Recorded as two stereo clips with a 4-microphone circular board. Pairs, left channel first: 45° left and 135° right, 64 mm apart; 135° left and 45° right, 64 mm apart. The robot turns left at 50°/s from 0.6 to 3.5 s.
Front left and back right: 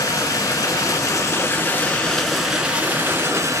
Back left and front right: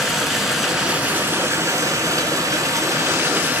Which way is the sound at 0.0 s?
40° left.